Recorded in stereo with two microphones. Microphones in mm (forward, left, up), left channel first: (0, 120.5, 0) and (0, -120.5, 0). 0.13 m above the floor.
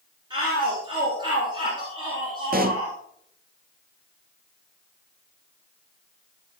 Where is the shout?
20° right (ahead or behind), 2.5 m.